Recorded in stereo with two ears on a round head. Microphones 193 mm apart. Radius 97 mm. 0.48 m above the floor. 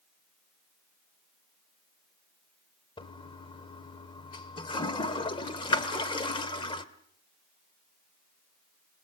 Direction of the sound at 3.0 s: 20° left (ahead or behind).